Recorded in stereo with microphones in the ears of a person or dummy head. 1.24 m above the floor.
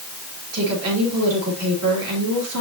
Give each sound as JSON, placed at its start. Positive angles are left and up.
{"t": 0.5, "sound": "a woman speaking", "side_deg": -80, "distance_m": 2.5}